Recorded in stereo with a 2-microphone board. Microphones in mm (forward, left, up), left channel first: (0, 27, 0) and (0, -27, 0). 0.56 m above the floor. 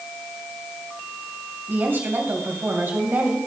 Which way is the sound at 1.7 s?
45° right (ahead or behind).